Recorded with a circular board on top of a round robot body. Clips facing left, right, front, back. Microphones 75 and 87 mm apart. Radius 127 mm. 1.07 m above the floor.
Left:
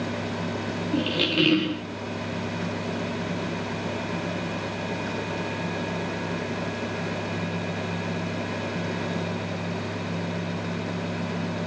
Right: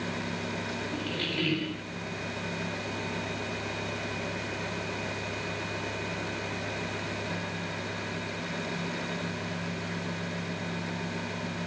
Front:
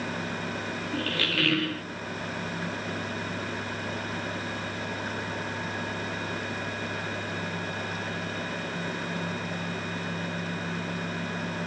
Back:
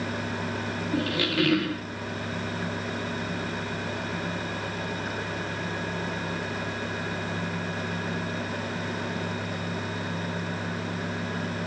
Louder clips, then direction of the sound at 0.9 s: Left 11 dB, back 5 dB; 105° left.